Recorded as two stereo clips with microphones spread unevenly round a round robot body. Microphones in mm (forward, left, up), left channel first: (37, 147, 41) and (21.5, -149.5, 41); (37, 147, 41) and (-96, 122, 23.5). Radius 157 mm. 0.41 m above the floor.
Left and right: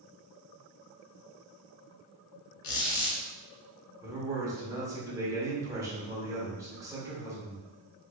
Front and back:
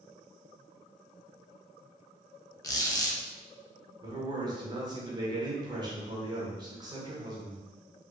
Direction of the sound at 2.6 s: 80° left.